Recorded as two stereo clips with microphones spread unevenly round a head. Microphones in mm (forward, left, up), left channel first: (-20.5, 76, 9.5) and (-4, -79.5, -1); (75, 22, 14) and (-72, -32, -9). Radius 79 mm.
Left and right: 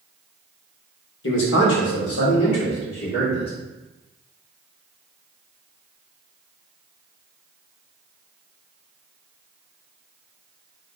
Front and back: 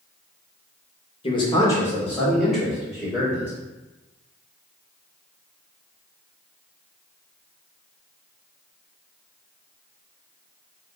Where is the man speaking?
80° left, 1.3 m; by 3.5 s 120° left, 2.5 m.